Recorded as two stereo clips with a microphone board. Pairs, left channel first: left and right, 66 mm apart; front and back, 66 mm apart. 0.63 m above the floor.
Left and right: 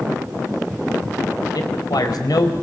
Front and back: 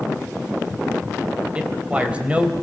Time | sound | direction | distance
1.6 | a man speaking | 105° left | 3 m